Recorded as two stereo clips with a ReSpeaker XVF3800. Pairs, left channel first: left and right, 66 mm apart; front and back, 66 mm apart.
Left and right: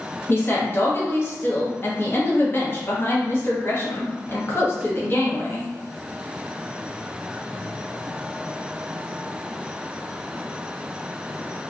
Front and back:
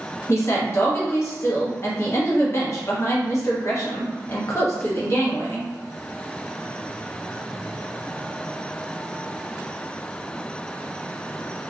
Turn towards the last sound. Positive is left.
turn(degrees=40)